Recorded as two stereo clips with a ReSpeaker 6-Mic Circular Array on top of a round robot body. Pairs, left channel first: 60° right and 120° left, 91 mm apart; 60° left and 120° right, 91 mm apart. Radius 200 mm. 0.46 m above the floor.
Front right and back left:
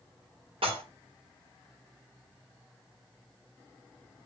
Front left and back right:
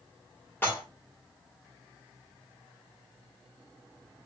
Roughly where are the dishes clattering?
Behind left.